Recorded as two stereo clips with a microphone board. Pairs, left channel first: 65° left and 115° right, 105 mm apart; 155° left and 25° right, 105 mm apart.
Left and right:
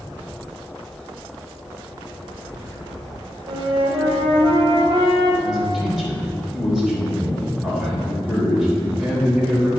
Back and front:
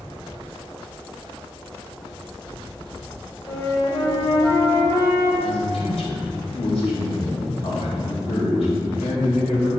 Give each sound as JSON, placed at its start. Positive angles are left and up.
{"t": 3.5, "sound": "a flute", "azimuth_deg": -145, "distance_m": 1.7}
{"t": 5.4, "sound": "a man speaking", "azimuth_deg": 160, "distance_m": 3.5}